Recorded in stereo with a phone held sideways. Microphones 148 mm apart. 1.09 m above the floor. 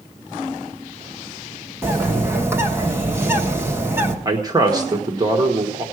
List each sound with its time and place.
1.8 s a bird: 15° right (ahead or behind), 1.3 m
4.2 s a man speaking: 25° right (ahead or behind), 1.3 m